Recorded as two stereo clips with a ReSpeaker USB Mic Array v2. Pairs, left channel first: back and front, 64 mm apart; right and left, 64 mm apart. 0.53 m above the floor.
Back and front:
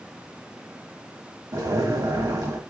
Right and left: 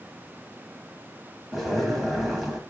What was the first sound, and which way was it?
A zipper, straight ahead.